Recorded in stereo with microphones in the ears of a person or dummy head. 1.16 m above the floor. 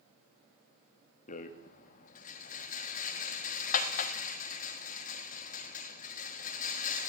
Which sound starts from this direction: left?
A rattle, at 1.3 s.